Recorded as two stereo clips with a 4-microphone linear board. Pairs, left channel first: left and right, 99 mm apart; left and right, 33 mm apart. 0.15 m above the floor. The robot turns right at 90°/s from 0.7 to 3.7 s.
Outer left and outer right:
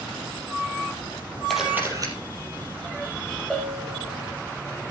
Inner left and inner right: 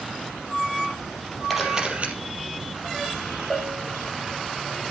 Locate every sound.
1.5 s a camera shutter: 175° left, 4 m; by 2.1 s 125° right, 4 m
3.5 s a bell: centre (ahead or behind), 4 m; by 4.3 s 20° left (ahead or behind), 4 m